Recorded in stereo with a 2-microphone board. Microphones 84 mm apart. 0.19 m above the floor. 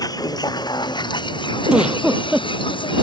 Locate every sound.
0.0 s a vehicle: 50° left (ahead or behind); by 3.0 s 75° left (ahead or behind)
1.7 s a giggle: 10° right (ahead or behind)